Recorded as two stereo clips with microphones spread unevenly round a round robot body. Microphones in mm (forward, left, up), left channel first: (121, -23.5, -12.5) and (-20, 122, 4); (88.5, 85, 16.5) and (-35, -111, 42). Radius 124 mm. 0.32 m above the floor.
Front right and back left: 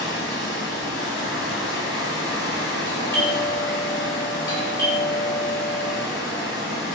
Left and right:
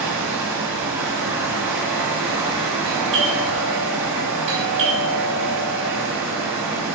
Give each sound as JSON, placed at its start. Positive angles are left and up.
{"t": 0.0, "sound": "running water", "azimuth_deg": -40, "distance_m": 1.3}
{"t": 2.9, "sound": "a doorbell", "azimuth_deg": -95, "distance_m": 1.8}